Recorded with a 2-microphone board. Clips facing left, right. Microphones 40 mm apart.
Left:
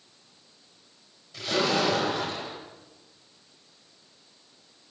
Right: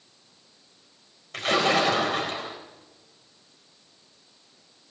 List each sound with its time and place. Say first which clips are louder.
1.3 s a splash: right 3 dB; 60° right (ahead or behind), 4.5 m